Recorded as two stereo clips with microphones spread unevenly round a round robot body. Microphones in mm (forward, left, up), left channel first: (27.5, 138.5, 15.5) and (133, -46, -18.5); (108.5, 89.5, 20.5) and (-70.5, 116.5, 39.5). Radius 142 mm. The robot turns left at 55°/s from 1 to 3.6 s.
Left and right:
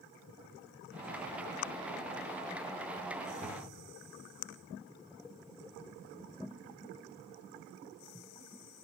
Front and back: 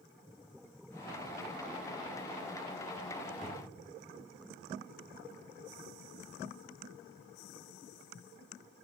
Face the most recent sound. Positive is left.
turn(degrees=70)